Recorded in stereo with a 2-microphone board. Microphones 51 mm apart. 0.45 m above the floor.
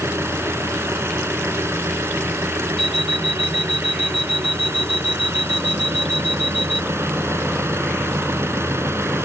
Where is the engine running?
65° right (ahead or behind).